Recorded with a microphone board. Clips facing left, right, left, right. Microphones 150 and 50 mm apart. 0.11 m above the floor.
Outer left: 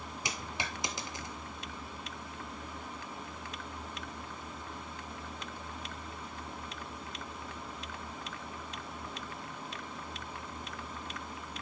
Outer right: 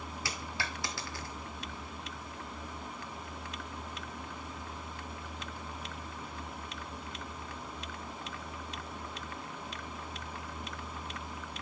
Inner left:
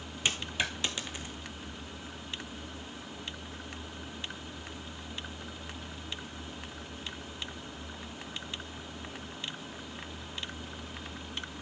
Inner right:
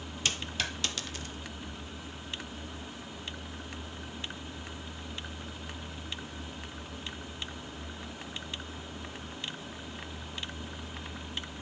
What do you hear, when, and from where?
0.2 s a dropped coin: 20° left (ahead or behind), 1.1 m